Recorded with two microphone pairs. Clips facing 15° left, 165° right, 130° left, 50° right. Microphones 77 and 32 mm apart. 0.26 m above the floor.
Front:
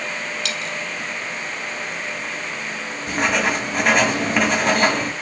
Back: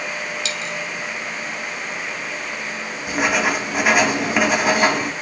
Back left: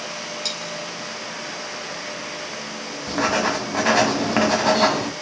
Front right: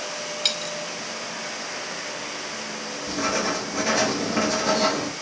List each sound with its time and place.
0.5 s a dropped coin: 10° right, 1.4 m
3.1 s writing: 115° left, 0.8 m